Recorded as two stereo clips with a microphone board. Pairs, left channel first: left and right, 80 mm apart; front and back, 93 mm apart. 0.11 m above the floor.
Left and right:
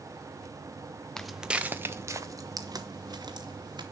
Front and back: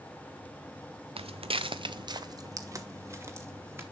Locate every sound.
1.2 s footsteps: 175° left, 0.6 m; by 3.8 s 115° right, 1.8 m